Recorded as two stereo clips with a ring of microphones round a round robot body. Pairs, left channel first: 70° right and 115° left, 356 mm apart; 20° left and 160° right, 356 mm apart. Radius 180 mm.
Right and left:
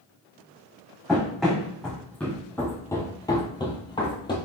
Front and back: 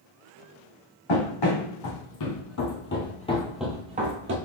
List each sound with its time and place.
1.1 s running footsteps: 20° left, 2 m; by 4.3 s 140° right, 1.1 m